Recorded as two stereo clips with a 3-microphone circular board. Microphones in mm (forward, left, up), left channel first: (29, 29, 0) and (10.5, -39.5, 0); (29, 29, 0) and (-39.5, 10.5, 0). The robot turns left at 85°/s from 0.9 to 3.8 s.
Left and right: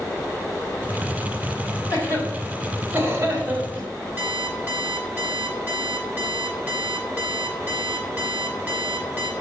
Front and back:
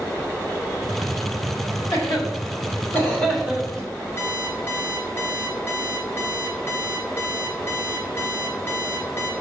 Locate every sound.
1.9 s a cough: 50° left, 3 m; by 3.9 s 115° right, 3 m
4.2 s an alarm clock: 40° right, 1.7 m